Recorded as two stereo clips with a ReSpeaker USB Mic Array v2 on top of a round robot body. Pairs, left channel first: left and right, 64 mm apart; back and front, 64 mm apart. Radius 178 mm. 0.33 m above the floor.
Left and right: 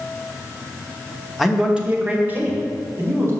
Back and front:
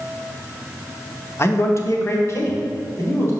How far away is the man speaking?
About 1.3 m.